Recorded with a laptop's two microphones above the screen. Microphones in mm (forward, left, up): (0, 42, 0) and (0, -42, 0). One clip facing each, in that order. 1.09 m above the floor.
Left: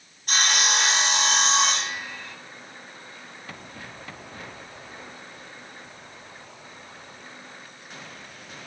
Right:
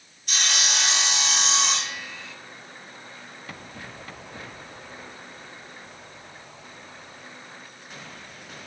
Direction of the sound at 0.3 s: 45° left (ahead or behind).